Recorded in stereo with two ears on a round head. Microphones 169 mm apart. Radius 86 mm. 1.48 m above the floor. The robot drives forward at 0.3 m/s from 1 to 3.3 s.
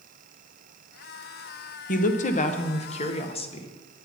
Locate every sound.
1.9 s a woman speaking: 45° left (ahead or behind), 1.0 m; by 3.7 s 35° left (ahead or behind), 1.3 m